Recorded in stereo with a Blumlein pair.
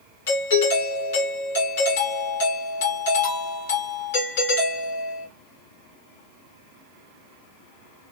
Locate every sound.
0.3 s a doorbell: 55° left, 2 m